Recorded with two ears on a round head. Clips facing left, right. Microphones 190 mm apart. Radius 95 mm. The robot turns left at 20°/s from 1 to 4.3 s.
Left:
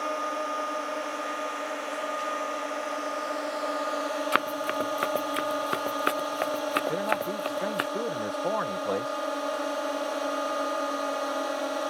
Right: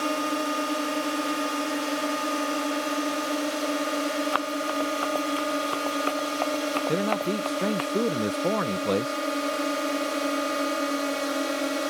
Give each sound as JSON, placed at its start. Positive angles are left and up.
{"t": 0.0, "sound": "a drone", "azimuth_deg": -70}
{"t": 4.3, "sound": "running footsteps", "side_deg": 30}
{"t": 6.9, "sound": "a man speaking", "side_deg": -40}